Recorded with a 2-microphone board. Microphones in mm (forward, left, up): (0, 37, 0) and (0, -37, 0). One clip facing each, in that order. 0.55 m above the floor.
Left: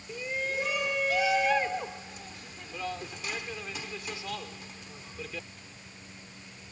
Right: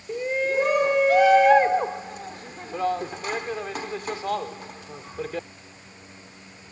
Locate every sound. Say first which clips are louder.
0.1 s a shout: right 9 dB; 50° right (ahead or behind)